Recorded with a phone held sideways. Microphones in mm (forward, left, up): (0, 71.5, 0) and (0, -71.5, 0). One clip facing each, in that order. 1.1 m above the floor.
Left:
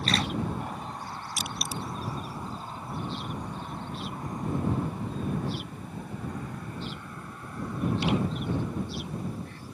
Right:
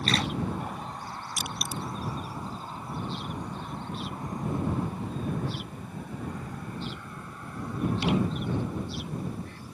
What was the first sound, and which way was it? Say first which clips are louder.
Crushing: even; 50° right (ahead or behind).